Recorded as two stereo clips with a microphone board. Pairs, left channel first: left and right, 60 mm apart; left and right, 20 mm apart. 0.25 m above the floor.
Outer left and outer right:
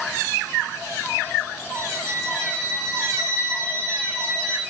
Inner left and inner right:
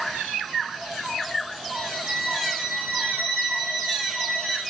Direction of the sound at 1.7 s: 90° left.